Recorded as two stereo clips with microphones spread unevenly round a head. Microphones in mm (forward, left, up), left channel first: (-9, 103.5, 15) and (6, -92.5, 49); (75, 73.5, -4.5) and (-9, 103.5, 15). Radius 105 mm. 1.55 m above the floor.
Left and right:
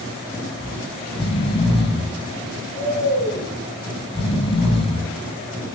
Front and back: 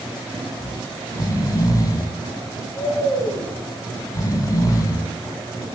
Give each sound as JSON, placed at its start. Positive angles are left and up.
{"t": 0.6, "sound": "snoring", "azimuth_deg": 30, "distance_m": 1.9}